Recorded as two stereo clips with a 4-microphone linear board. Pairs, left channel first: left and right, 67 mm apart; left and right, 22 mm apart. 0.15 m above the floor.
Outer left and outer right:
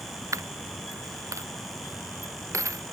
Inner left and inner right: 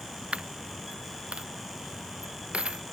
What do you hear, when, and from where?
0.3 s a dropped coin: 50° right (ahead or behind)